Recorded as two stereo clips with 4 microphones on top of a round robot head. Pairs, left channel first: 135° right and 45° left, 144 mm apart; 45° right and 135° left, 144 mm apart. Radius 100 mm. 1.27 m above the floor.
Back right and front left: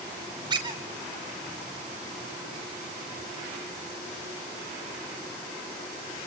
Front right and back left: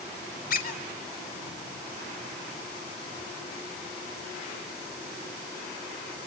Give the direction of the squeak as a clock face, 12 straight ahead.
1 o'clock.